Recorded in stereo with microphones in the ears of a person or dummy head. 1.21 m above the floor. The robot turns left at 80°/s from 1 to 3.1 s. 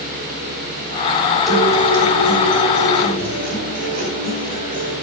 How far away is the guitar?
About 5 m.